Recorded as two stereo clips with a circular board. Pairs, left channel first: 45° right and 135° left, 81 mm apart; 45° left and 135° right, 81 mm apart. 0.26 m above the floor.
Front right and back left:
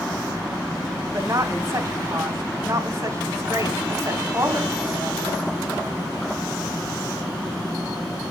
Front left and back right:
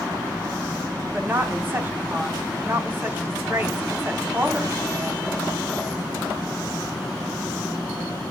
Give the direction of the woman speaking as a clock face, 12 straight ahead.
6 o'clock.